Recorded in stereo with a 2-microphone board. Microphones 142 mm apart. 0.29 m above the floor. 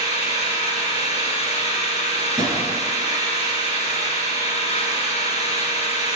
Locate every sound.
0.0 s an engine running: 50° left (ahead or behind), 1.5 m
2.4 s a drawer: 25° right (ahead or behind), 3 m